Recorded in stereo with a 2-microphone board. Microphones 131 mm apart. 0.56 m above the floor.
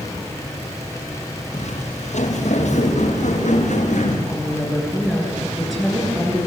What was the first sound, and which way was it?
Footsteps, 70° left (ahead or behind).